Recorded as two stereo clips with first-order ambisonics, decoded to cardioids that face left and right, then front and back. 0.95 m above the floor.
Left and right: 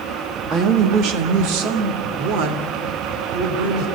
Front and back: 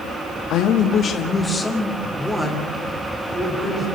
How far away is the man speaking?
About 1.7 m.